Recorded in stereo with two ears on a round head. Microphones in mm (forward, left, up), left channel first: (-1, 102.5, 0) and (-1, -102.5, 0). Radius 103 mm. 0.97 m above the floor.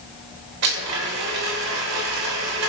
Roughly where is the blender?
Right.